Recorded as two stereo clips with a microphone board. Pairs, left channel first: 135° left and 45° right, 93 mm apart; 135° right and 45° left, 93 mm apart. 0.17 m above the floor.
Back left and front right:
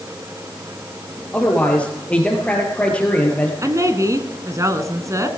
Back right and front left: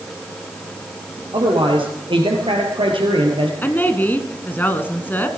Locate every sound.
1.3 s a man speaking: 60° left, 4 m
3.6 s a woman speaking: 75° right, 1.6 m